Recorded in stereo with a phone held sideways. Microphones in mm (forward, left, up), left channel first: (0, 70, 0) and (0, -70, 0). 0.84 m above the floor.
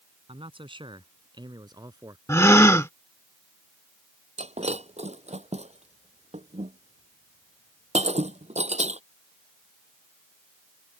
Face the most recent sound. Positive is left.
turn(degrees=-50)  # may be behind; listen again after turning